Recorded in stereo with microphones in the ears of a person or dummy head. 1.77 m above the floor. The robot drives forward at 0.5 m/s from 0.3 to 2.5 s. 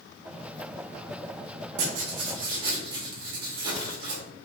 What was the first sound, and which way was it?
Writing, 45° right (ahead or behind).